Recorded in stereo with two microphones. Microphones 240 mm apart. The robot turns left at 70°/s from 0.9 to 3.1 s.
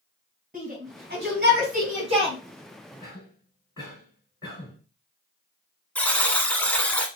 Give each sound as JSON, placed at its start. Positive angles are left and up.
{"t": 0.5, "sound": "a shout", "side_deg": -35, "distance_m": 1.9}
{"t": 3.0, "sound": "a cough", "side_deg": 10, "distance_m": 3.0}
{"t": 6.0, "sound": "a buzzer", "side_deg": 5, "distance_m": 0.9}